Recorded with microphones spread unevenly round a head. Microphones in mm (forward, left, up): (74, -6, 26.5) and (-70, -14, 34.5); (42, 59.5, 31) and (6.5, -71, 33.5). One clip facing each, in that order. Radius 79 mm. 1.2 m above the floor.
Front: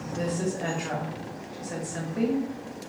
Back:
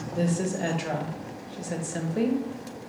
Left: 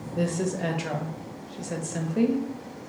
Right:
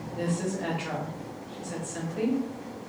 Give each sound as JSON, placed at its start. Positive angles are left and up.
{"t": 0.1, "sound": "a woman speaking", "azimuth_deg": 125, "distance_m": 0.8}